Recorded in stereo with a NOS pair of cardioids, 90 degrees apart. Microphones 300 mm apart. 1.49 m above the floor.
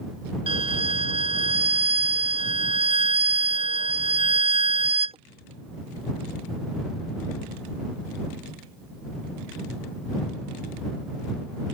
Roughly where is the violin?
Ahead.